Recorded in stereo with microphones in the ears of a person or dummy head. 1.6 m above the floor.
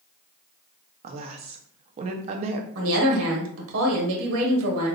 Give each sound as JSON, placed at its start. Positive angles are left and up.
{"t": 1.0, "sound": "a woman speaking", "side_deg": -40, "distance_m": 0.6}
{"t": 2.8, "sound": "a woman speaking", "side_deg": -80, "distance_m": 1.3}